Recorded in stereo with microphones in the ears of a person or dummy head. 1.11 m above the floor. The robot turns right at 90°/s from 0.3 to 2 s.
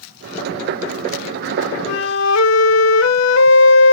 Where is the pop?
I don't hear a pop.